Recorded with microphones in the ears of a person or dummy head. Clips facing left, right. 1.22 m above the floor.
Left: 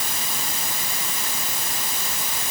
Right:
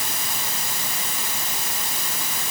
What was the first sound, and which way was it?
Only background noise.